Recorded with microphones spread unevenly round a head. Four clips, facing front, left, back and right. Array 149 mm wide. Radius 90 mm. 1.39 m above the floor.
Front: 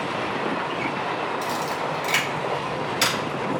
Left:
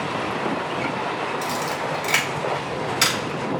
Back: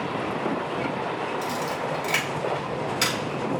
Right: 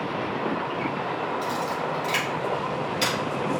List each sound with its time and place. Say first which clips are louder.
1.4 s a camera shutter: left 1 dB, front 2 dB; 70° left, 5 m